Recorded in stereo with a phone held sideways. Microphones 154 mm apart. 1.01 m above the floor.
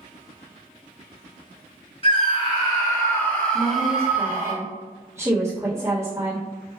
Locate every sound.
2.0 s a scream: 40° left (ahead or behind), 1.6 m; by 4.5 s 20° right (ahead or behind), 1.2 m
3.5 s a woman speaking: 15° right (ahead or behind), 1.2 m